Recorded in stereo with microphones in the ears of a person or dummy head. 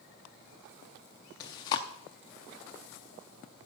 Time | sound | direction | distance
1.4 | chewing | 25° left (ahead or behind) | 0.6 m